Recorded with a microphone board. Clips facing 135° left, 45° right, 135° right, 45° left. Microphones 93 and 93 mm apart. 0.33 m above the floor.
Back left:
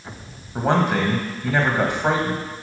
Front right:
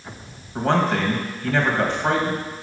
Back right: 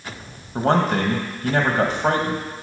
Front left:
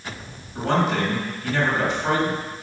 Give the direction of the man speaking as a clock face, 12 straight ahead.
5 o'clock.